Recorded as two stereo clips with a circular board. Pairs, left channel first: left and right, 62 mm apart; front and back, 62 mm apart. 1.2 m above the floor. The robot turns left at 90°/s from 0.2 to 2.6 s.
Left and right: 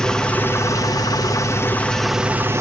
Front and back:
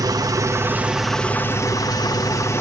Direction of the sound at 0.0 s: 170° left.